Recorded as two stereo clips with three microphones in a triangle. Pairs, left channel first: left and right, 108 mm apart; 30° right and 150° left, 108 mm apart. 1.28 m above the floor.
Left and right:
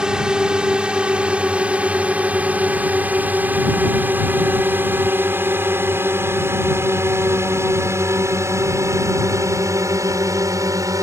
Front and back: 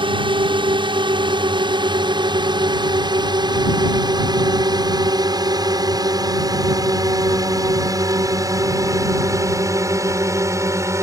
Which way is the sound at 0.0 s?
170° right.